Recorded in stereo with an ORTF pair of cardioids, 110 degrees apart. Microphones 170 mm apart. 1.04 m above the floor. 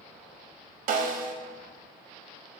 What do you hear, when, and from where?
0.9 s a snare drum: 50° right, 0.6 m